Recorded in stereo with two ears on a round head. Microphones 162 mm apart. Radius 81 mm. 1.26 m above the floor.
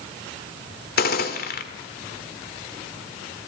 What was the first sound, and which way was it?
A gunshot, 50° left (ahead or behind).